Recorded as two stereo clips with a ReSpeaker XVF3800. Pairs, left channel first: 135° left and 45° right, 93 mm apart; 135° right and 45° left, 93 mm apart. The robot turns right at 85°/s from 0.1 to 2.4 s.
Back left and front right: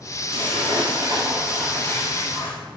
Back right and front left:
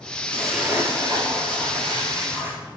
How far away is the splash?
About 1.0 m.